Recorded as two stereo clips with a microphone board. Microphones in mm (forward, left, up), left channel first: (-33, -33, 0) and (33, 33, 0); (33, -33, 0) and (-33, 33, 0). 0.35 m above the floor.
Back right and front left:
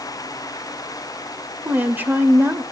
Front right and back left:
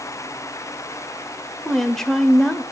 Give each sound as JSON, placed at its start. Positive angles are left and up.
{"t": 1.6, "sound": "a woman speaking", "azimuth_deg": 30, "distance_m": 1.0}